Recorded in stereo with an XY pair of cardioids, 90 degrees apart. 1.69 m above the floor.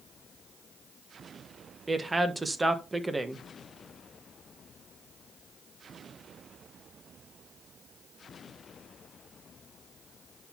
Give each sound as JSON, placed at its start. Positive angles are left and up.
{"t": 1.9, "sound": "a woman speaking", "azimuth_deg": -25, "distance_m": 1.4}